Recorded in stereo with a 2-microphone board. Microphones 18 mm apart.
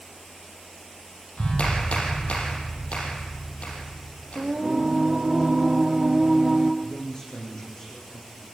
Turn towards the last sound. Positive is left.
turn(degrees=30)  # may be behind; listen again after turning